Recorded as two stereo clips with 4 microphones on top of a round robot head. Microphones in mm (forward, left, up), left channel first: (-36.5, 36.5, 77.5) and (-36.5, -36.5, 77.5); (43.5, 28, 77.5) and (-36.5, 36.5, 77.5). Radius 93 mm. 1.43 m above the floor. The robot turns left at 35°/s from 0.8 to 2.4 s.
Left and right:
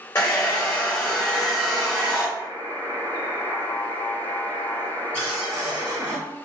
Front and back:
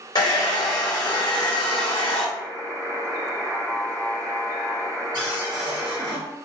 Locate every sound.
0.1 s a hair dryer: 30° left, 0.6 m; by 2.3 s 25° right, 0.6 m
2.4 s a buzzer: 125° left, 1.1 m
5.1 s a cupboard door: 160° left, 1.0 m